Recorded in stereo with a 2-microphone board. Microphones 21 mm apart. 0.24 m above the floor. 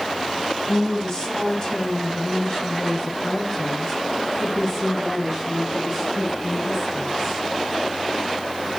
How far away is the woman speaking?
About 2 m.